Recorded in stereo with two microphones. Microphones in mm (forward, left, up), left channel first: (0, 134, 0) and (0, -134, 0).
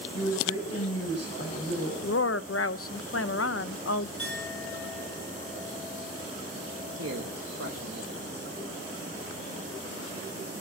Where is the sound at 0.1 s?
70° left (ahead or behind), 6 m.